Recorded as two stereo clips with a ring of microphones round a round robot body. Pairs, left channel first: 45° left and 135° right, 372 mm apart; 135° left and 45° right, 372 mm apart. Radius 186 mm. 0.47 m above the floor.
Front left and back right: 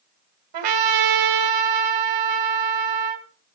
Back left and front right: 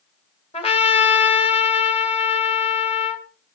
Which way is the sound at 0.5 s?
150° right.